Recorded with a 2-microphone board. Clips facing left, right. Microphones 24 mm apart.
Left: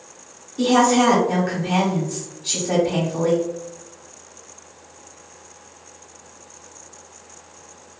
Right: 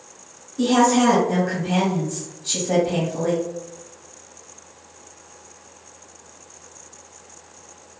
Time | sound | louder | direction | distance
0.6 | a woman speaking | left 1 dB | 20° left (ahead or behind) | 1.2 m